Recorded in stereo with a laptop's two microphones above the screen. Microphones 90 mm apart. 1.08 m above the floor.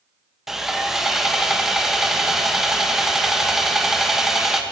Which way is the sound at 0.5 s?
5° right (ahead or behind).